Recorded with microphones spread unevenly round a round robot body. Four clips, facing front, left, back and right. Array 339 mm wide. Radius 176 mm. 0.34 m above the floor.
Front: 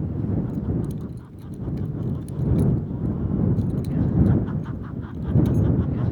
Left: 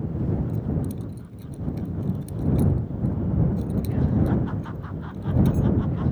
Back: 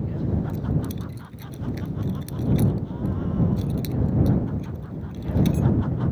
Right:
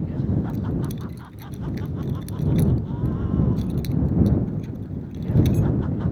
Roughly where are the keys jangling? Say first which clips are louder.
Right 1 dB, front 1 dB; behind right.